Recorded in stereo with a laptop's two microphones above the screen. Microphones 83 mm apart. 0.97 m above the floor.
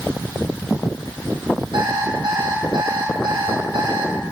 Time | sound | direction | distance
1.7 | an alarm clock | 85° right | 3.5 m